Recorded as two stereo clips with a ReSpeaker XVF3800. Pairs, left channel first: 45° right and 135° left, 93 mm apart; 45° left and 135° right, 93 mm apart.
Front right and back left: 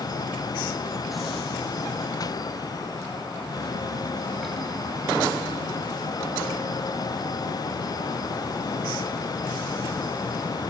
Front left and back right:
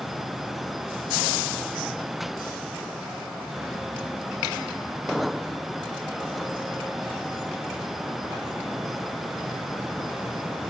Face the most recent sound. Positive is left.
No sound to turn to.